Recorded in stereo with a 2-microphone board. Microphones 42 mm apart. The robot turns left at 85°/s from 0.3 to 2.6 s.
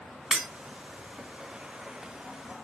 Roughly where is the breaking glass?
Centre.